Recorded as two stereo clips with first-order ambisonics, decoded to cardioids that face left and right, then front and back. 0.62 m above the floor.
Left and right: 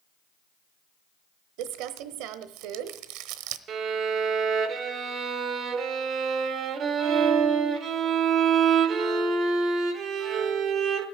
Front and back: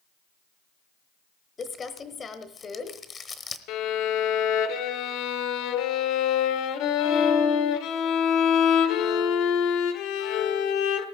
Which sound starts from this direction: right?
Crumpling, at 1.6 s.